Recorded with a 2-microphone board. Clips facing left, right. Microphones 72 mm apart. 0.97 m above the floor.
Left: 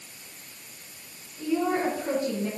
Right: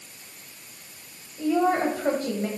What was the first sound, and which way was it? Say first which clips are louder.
A woman speaking: right 4 dB; 75° right (ahead or behind).